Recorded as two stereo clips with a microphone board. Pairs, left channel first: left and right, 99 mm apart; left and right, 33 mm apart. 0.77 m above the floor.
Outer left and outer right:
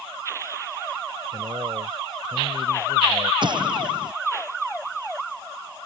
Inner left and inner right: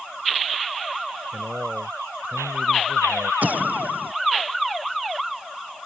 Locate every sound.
1.3 s a man speaking: 35° right (ahead or behind); by 3.3 s 70° right (ahead or behind)
3.4 s an explosion: 55° right (ahead or behind)